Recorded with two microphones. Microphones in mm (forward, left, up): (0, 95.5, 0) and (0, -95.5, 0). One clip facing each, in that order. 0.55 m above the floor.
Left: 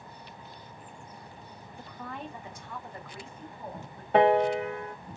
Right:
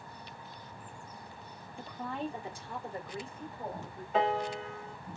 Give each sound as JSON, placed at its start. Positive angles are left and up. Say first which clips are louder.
{"t": 1.8, "sound": "a woman speaking", "louder": "right 4 dB", "side_deg": -30, "distance_m": 1.4}
{"t": 4.1, "sound": "a piano", "louder": "left 9 dB", "side_deg": 70, "distance_m": 0.7}